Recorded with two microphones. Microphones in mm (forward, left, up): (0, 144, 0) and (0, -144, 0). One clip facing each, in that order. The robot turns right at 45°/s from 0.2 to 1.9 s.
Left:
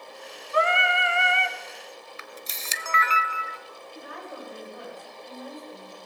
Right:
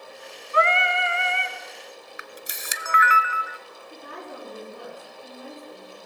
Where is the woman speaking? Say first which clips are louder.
Right 1 dB; 50° right (ahead or behind), 9 m.